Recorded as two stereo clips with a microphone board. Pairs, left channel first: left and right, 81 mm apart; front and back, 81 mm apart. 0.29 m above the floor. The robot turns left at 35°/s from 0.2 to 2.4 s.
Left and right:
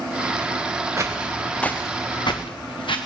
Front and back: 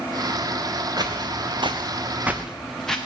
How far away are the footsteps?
About 1.6 m.